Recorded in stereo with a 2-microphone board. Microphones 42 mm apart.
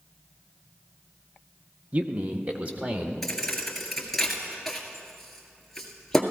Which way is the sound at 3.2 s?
5° left (ahead or behind).